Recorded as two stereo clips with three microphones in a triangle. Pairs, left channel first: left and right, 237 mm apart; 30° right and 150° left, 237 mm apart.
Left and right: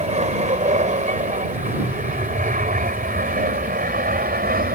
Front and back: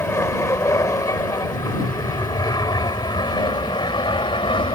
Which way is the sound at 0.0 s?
95° right.